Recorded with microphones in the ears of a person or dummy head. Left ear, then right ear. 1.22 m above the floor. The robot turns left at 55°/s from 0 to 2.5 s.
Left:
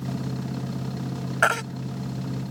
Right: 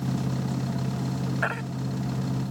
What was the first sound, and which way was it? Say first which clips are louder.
A baby crying: left 8 dB; 50° left (ahead or behind).